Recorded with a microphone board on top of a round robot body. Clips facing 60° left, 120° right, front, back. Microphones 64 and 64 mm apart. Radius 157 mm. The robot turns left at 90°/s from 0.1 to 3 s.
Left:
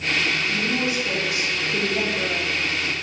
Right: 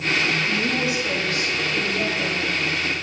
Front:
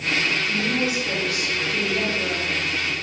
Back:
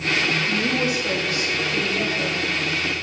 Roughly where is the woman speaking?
Behind right.